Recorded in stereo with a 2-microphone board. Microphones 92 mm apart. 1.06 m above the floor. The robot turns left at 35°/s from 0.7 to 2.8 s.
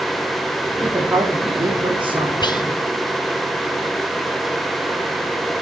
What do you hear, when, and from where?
0.8 s a woman speaking: 15° right, 2.5 m; by 2.3 s 65° right, 2.5 m
2.4 s whispering: 50° left (ahead or behind), 0.8 m; by 2.6 s 45° left (ahead or behind), 0.8 m